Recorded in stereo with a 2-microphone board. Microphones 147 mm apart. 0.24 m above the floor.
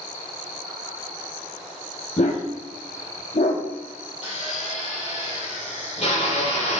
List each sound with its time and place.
2.2 s a dog barking: 50° left (ahead or behind), 2.5 m
4.2 s a drill: 45° left (ahead or behind), 4.5 m